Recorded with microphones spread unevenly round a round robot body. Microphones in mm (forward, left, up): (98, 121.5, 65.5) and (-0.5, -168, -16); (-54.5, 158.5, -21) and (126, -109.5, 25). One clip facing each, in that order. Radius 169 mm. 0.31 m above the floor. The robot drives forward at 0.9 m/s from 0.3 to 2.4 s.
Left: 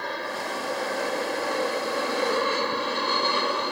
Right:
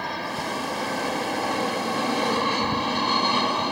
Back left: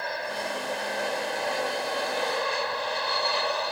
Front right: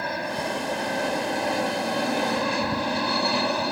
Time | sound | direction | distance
0.0 | an aircraft | 85° right | ?